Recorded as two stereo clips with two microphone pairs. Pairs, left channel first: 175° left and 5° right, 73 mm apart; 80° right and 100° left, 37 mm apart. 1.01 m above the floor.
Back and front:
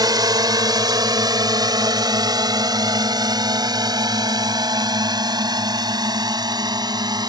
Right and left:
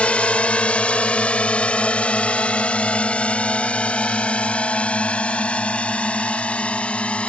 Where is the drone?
20° right.